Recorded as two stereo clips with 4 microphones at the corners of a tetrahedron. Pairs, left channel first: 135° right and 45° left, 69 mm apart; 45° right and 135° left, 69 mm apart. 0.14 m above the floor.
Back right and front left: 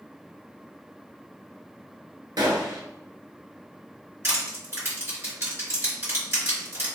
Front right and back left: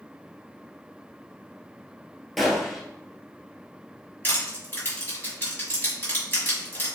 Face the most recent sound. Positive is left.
turn(degrees=5)